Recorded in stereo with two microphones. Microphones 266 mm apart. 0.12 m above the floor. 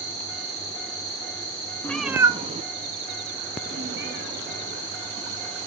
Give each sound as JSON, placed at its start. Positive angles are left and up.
{"t": 1.8, "sound": "a cat meowing", "side_deg": 10, "distance_m": 0.8}